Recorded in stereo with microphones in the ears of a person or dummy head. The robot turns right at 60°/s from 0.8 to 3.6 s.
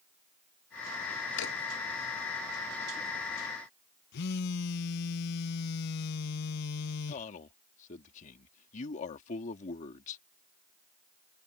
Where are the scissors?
I don't hear scissors.